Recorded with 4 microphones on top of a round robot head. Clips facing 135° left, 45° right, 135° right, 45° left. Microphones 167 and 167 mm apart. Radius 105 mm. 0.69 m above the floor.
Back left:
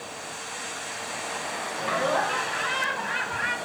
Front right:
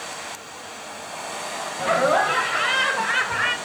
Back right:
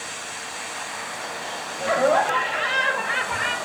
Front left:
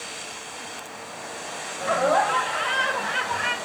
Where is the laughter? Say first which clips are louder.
Front right 6 dB, back right 2 dB; 65° right, 3.5 m; by 3.6 s 50° right, 3 m.